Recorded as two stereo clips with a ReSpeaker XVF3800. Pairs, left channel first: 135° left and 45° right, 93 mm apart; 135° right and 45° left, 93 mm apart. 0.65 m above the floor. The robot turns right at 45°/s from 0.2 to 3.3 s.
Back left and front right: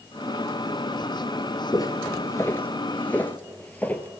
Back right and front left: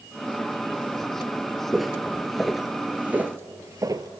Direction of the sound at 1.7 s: 135° left.